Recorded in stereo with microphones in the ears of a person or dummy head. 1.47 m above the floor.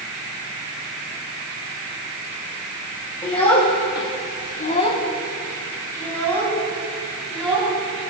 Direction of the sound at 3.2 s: 20° left (ahead or behind).